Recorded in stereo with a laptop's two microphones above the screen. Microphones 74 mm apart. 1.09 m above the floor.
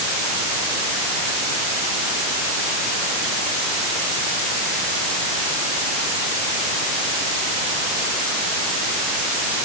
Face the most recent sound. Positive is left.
No sound to turn to.